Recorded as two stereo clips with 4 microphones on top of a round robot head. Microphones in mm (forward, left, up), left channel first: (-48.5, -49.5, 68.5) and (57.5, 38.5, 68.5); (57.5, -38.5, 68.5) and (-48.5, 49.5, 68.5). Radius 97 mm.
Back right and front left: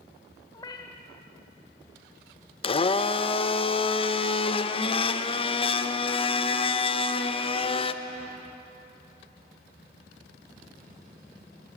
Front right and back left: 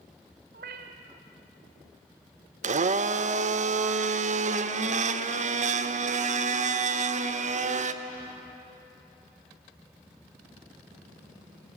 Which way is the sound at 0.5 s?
155° left.